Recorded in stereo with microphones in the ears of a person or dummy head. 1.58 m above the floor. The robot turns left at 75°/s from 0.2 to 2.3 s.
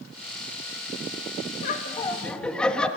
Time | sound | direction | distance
1.6 | laughter | 55° left | 3 m